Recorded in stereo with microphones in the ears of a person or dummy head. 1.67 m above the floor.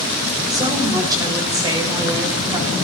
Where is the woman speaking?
20° right (ahead or behind), 4.5 m.